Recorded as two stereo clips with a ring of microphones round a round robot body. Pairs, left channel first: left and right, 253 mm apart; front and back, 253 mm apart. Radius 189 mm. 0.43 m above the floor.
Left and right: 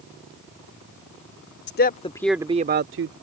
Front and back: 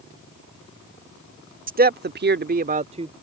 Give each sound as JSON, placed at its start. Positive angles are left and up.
{"t": 1.7, "sound": "a man speaking", "azimuth_deg": 130}